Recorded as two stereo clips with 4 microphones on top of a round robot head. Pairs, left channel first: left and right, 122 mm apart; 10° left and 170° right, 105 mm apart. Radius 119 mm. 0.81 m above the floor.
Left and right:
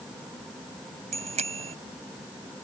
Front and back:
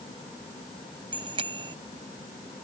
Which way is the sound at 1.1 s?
125° right.